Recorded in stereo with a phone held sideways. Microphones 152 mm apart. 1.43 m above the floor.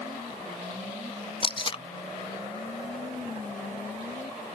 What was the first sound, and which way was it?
Tape being pulled, 35° left (ahead or behind).